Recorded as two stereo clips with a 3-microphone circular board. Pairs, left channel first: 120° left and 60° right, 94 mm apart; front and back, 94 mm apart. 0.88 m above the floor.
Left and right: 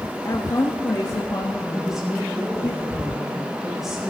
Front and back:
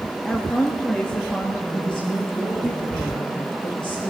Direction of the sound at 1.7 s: 25° left.